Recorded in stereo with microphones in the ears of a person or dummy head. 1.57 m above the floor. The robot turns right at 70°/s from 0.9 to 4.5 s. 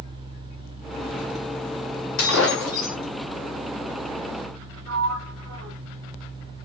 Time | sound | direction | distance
2.2 | breaking glass | 85° left | 2 m
4.9 | a sliding door | 65° right (ahead or behind) | 0.8 m